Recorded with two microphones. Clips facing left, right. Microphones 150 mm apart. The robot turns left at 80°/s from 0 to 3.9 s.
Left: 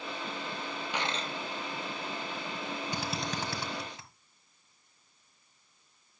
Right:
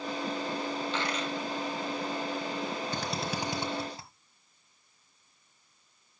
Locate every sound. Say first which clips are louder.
0.9 s a dropped coin: right 2 dB; 170° left, 1.6 m; by 1.3 s 135° left, 1.6 m
2.9 s a drill: right 2 dB; 15° left (ahead or behind), 1.5 m; by 4.1 s 35° right (ahead or behind), 1.5 m